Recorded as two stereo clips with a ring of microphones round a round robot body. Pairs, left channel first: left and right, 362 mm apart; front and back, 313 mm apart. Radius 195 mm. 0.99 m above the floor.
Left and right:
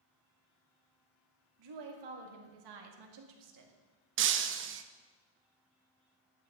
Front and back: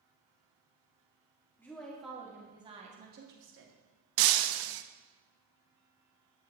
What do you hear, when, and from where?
1.6 s a woman speaking: 85° right, 2.5 m; by 3.8 s 135° right, 1.8 m
4.2 s breaking glass: 150° right, 0.6 m